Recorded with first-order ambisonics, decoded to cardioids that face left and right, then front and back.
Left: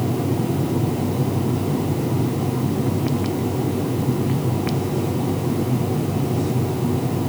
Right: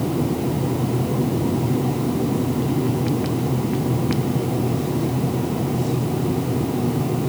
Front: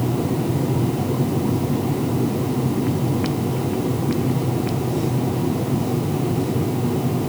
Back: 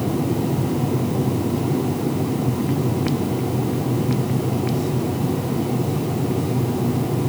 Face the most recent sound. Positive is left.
No sound to turn to.